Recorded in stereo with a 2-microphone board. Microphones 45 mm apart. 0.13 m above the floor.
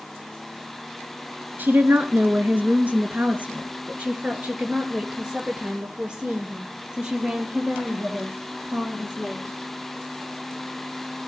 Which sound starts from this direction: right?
A woman speaking, at 1.6 s.